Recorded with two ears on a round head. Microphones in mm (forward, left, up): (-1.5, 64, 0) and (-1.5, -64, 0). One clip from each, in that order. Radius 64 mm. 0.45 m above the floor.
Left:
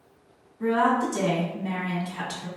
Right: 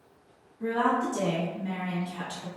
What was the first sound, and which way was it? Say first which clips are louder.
A woman speaking: left 4 dB; 35° left (ahead or behind).